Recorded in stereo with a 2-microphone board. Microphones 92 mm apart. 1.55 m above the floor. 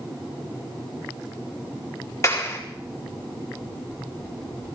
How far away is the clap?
About 4 m.